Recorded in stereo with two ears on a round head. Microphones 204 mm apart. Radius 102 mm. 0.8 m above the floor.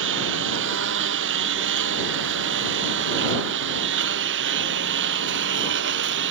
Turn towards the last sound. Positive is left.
turn(degrees=-60)  # may be behind; listen again after turning